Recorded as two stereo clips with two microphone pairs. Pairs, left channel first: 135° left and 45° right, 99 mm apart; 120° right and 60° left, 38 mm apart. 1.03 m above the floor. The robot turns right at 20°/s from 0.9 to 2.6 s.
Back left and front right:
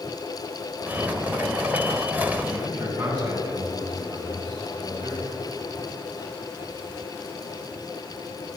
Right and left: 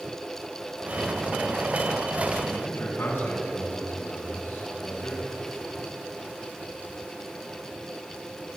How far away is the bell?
I don't hear a bell.